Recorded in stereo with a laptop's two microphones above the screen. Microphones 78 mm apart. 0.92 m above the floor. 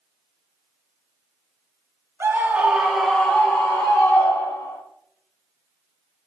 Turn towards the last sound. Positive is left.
turn(degrees=45)  # may be behind; listen again after turning